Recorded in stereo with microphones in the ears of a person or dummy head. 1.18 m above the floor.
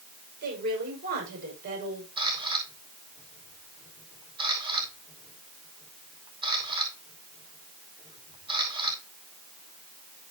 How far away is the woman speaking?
About 6 m.